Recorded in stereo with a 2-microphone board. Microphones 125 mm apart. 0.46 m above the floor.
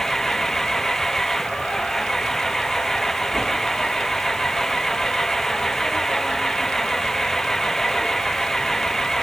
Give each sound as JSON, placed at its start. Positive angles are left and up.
{"t": 0.0, "sound": "an engine running", "side_deg": 5}